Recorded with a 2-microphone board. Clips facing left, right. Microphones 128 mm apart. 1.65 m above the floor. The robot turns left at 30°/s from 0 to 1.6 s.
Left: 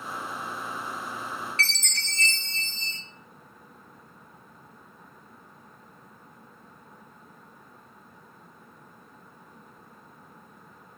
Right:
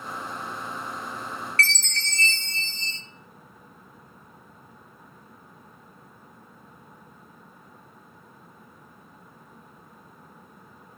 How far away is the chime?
About 1.4 m.